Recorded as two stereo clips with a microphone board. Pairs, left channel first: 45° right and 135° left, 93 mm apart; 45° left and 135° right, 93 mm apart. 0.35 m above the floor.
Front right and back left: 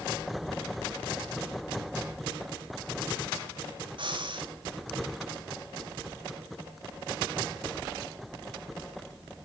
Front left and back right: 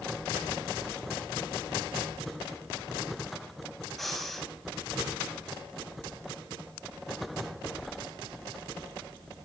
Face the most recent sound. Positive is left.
turn(degrees=135)